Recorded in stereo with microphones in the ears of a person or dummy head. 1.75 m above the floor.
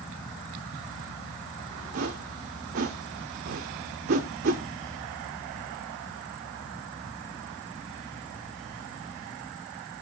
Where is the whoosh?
50° right (ahead or behind), 0.5 m.